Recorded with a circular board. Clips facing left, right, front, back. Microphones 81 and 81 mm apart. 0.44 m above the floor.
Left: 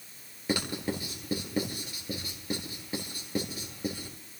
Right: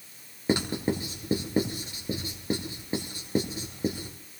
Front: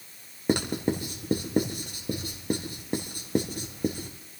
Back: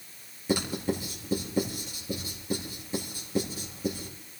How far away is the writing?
About 3 m.